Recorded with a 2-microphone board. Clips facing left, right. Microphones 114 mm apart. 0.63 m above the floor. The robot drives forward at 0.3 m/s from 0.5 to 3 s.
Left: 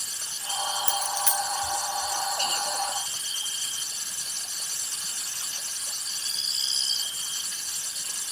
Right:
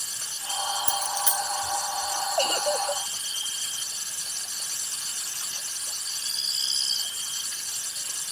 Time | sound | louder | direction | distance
0.9 | a dropped coin | even | 15° right (ahead or behind) | ?
2.4 | a giggle | right 5 dB | 55° right (ahead or behind) | ?